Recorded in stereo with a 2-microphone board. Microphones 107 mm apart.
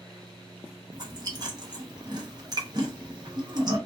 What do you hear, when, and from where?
0.9 s chewing: 40° right (ahead or behind), 0.7 m